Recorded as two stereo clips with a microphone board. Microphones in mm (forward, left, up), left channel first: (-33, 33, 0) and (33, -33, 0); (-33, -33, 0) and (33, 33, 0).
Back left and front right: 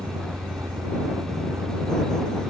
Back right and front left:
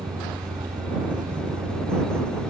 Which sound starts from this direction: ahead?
A vehicle, at 0.0 s.